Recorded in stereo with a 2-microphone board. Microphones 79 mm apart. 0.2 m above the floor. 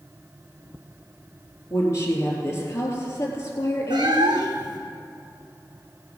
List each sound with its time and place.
1.7 s a woman speaking: 35° left (ahead or behind), 3.5 m
3.9 s a cat meowing: 65° right (ahead or behind), 1.7 m